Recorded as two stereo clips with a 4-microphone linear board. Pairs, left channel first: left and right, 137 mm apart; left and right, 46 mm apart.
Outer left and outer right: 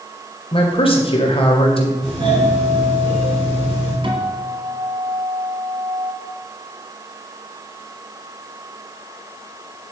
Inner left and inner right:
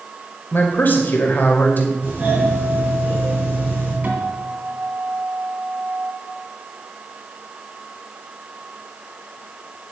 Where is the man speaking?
45° left (ahead or behind), 2 m.